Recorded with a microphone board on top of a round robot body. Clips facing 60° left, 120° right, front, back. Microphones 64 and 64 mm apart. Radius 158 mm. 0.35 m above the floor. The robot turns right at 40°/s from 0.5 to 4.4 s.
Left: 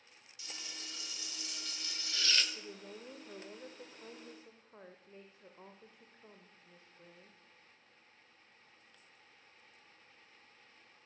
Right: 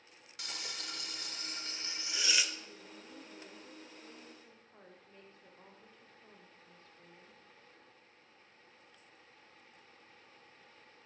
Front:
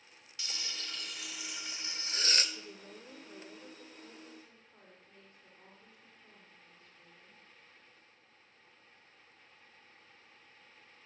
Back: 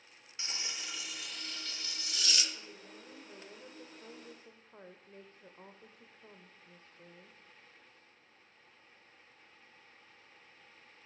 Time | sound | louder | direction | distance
0.4 | frying | right 5 dB, back 1 dB | 120° right | 1.6 m
2.5 | a woman speaking | left 3 dB, front 2 dB | 55° left | 1.8 m